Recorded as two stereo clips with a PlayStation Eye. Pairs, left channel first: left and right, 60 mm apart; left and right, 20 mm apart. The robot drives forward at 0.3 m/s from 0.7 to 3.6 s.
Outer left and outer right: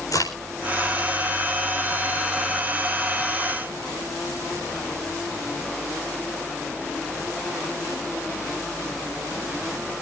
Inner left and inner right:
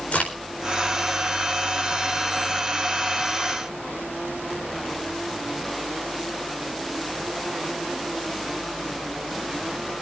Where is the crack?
85° left, 4.5 m.